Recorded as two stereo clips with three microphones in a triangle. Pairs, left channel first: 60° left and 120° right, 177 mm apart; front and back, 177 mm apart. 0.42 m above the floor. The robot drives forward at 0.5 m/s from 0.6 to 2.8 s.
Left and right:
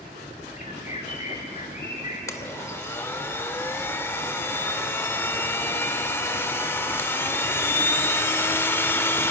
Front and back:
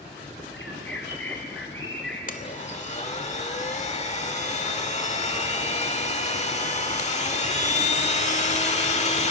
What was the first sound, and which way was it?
A bird, 10° left.